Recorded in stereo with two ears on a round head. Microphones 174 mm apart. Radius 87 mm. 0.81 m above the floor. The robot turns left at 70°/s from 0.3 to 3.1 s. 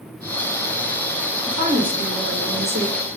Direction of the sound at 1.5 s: 25° right.